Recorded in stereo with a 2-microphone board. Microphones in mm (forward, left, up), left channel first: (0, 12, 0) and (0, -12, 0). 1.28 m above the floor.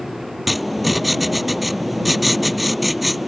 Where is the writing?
Centre (ahead or behind).